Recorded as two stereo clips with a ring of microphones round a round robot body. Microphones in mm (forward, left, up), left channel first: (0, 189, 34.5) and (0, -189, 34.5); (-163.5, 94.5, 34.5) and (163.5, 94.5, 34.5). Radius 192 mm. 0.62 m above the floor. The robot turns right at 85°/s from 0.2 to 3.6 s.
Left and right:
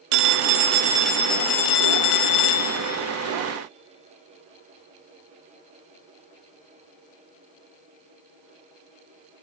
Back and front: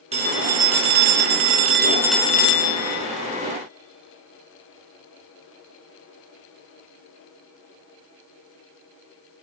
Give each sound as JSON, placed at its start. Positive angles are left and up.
{"t": 0.1, "sound": "a phone ringing", "azimuth_deg": -75, "distance_m": 0.7}